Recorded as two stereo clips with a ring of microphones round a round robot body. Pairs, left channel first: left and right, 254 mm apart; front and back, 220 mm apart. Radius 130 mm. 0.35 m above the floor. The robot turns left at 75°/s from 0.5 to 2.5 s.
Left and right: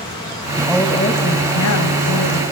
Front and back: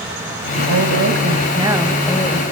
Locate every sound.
0.6 s a woman speaking: 170° right, 2.5 m; by 2.4 s 50° left, 2.5 m